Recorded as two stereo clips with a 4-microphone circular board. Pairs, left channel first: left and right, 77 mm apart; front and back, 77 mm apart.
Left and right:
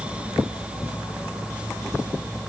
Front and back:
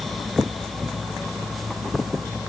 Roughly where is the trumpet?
No trumpet in this recording.